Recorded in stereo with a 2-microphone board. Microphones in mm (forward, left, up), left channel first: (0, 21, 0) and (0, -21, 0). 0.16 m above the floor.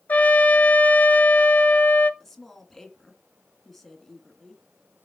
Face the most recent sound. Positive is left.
turn(degrees=5)  # may be behind; listen again after turning